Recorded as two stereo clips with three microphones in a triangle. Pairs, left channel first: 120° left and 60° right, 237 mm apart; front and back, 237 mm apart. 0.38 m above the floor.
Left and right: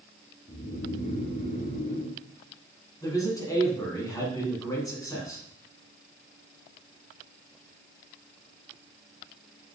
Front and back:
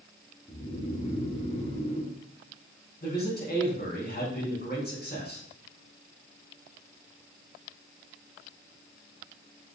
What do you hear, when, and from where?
0.5 s snoring: 65° left, 2.0 m
3.0 s a man speaking: 45° left, 3.5 m